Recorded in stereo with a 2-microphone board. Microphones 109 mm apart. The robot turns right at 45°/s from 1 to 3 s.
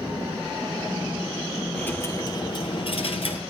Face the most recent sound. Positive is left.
turn(degrees=70)